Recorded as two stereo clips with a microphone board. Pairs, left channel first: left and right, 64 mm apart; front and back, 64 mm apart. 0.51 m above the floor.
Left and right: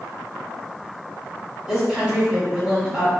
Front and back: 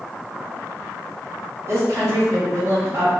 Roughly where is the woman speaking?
Behind.